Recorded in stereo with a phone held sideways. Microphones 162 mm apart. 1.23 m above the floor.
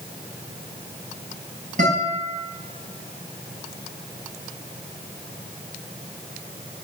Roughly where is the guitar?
Right.